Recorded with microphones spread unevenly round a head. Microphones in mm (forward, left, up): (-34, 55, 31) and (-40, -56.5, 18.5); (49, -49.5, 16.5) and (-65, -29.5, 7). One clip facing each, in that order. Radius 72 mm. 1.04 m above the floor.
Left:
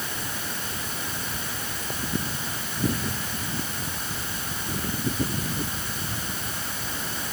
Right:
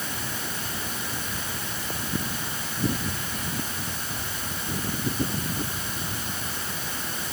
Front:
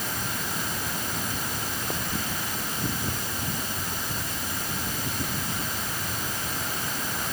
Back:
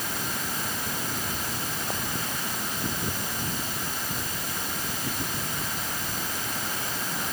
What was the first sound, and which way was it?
Only background noise.